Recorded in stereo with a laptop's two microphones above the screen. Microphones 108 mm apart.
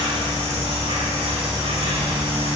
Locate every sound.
0.0 s an insect: 75° right (ahead or behind), 5.5 m